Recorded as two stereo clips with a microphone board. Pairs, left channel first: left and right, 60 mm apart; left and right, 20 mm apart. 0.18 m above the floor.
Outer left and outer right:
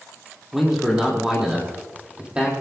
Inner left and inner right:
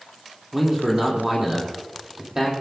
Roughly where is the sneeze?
No sneeze in this recording.